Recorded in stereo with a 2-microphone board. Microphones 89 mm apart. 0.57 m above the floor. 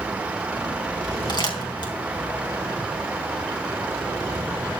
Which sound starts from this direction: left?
Crumpling, at 1.3 s.